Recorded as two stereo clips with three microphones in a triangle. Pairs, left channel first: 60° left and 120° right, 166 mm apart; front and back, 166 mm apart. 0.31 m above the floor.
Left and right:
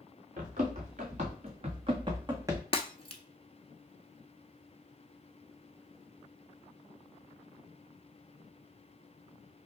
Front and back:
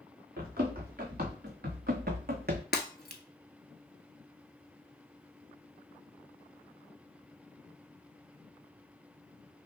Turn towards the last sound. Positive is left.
turn(degrees=5)